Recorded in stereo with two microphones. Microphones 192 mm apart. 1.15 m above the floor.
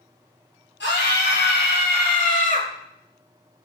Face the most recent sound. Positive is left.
turn(degrees=35)  # may be behind; listen again after turning